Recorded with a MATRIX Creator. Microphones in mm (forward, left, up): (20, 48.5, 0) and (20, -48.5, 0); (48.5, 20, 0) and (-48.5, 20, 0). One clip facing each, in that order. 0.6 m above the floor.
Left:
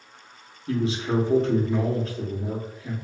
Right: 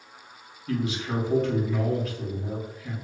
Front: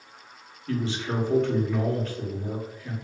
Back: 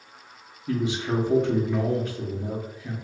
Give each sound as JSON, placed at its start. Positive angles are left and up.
{"t": 0.7, "sound": "a man speaking", "azimuth_deg": 115, "distance_m": 0.8}